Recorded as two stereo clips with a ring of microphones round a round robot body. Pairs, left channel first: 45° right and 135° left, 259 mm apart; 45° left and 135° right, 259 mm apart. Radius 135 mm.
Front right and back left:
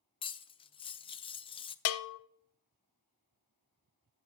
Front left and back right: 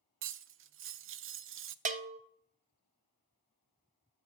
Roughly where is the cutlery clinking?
Right.